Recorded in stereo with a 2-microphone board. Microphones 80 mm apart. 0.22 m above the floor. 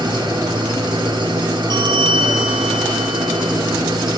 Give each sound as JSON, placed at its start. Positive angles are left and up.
{"t": 0.0, "sound": "an engine running", "side_deg": -75, "distance_m": 3.0}
{"t": 1.7, "sound": "a bell", "side_deg": -65, "distance_m": 3.5}